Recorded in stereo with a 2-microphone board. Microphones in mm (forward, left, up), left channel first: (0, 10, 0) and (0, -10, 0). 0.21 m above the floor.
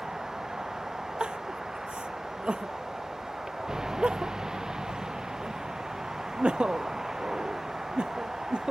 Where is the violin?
I don't hear a violin.